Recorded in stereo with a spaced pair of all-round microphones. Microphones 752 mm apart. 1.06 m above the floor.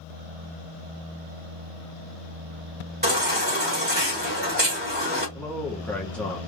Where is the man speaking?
Centre (ahead or behind), 0.8 m.